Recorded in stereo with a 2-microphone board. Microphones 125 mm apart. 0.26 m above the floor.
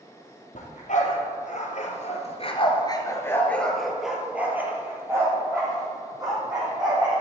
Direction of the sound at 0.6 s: 85° left.